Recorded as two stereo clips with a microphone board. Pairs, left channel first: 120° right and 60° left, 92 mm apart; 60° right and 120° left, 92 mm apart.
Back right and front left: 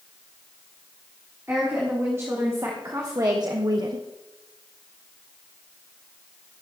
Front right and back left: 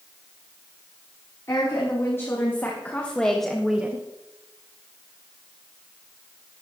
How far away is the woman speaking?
About 3.5 m.